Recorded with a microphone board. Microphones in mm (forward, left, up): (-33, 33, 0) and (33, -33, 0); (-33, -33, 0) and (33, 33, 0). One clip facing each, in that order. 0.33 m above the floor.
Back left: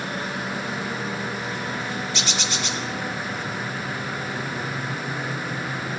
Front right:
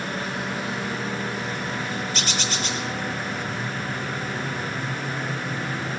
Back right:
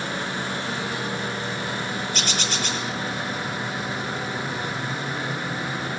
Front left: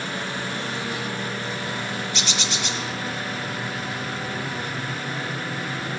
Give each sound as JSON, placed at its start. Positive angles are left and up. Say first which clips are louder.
{"t": 2.1, "sound": "a bird", "louder": "even, back right 1 dB", "azimuth_deg": -90, "distance_m": 3.5}